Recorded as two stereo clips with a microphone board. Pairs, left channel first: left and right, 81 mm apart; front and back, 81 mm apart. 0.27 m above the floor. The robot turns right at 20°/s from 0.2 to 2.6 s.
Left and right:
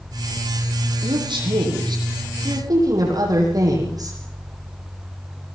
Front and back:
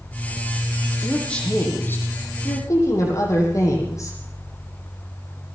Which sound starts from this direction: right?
A woman speaking, at 1.0 s.